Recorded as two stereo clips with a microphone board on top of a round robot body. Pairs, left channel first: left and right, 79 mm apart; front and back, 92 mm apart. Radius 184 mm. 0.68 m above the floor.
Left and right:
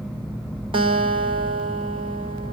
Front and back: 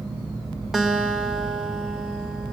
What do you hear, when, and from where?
0.7 s a guitar: 95° right, 2 m